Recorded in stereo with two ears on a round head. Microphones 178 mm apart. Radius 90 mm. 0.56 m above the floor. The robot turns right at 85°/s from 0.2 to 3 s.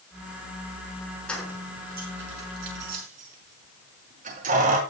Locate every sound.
1.3 s keys jangling: 5° left (ahead or behind), 5 m; by 4.8 s 40° right (ahead or behind), 5 m